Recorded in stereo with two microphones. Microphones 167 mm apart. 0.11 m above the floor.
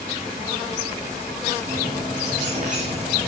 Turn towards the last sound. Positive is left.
turn(degrees=-45)  # may be behind; listen again after turning